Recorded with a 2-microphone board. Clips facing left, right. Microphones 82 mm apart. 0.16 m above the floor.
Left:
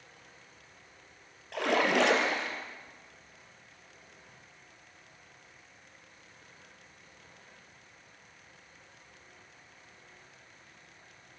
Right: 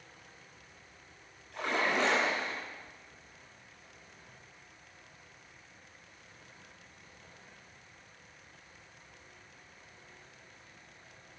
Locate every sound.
1.5 s a splash: 70° left (ahead or behind), 3.5 m